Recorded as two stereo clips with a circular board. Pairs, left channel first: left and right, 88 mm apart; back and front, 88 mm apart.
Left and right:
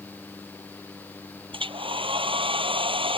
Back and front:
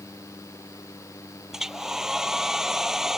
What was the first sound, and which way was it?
A hair dryer, 85° right.